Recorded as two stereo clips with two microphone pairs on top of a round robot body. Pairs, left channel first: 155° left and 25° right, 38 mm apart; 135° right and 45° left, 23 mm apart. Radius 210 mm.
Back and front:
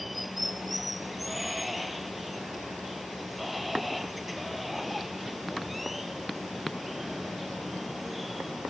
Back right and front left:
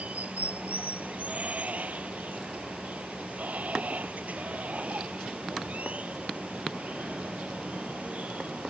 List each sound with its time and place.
0.0 s running water: 65° left